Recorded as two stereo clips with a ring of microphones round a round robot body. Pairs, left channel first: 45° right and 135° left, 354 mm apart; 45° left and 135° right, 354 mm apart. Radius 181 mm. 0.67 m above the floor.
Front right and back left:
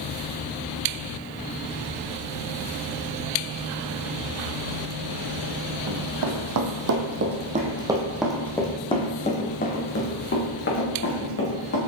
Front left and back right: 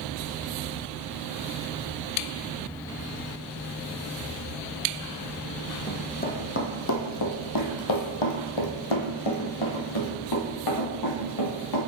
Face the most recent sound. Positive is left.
turn(degrees=5)